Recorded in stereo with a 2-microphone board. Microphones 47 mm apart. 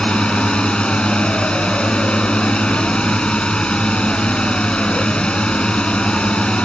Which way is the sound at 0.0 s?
20° left (ahead or behind).